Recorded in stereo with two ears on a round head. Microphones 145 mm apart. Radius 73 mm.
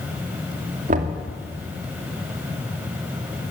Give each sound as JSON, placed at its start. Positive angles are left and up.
{"t": 0.9, "sound": "knocking", "side_deg": -50, "distance_m": 2.5}